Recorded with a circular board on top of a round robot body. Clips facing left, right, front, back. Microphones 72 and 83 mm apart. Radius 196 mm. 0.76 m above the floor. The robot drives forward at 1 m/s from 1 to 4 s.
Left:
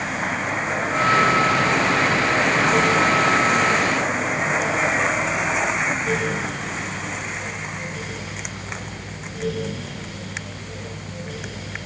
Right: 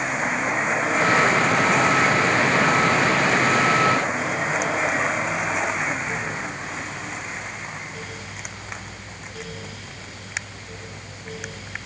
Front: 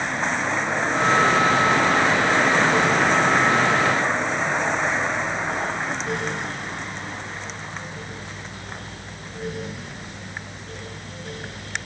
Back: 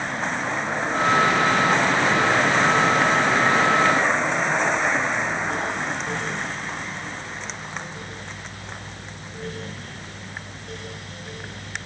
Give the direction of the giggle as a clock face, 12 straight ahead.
No giggle in this recording.